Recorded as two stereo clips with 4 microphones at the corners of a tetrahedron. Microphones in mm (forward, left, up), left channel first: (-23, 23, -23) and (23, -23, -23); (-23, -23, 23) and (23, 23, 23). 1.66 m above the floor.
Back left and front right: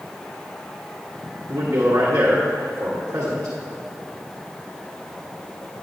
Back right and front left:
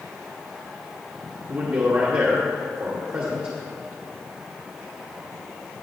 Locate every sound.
1.5 s a man speaking: 5° right, 1.3 m